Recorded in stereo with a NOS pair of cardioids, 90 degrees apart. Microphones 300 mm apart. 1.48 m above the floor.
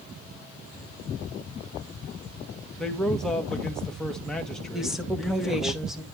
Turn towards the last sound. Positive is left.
turn(degrees=0)